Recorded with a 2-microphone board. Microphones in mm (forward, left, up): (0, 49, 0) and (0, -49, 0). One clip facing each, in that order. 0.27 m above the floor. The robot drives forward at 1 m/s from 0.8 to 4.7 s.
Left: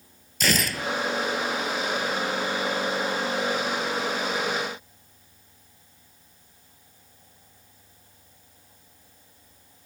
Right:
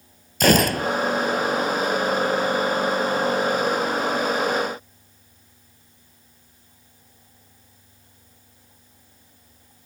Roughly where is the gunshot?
Right.